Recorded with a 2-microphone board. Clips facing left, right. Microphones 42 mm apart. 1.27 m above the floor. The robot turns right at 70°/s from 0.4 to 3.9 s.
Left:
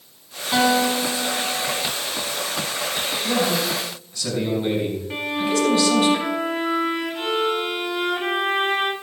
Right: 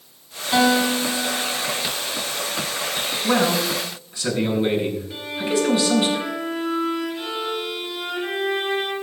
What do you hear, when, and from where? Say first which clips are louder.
0.5 s a guitar: right 1 dB; 175° left, 6 m; by 1.9 s 90° right, 6 m
3.2 s a man speaking: right 3 dB; 65° right, 7 m; by 6.1 s 20° right, 7 m
5.1 s a violin: left 4 dB; 50° left (ahead or behind), 2 m